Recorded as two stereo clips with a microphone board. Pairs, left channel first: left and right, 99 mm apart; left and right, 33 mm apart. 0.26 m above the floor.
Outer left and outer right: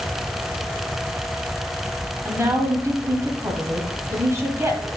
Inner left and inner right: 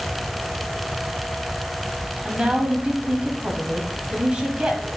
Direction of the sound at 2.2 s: 30° right (ahead or behind).